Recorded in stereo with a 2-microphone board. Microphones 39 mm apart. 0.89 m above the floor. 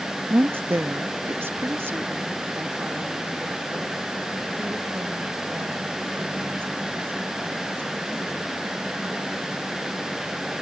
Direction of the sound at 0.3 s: 60° right (ahead or behind).